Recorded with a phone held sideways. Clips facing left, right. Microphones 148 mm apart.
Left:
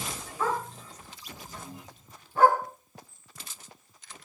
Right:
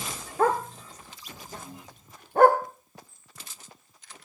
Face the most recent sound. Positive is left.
turn(degrees=-65)  # may be behind; listen again after turning